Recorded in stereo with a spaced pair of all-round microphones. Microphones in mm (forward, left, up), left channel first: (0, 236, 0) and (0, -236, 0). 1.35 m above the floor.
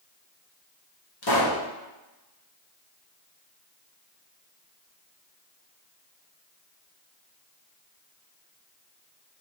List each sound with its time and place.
1.2 s a pop: 55° left (ahead or behind), 1.0 m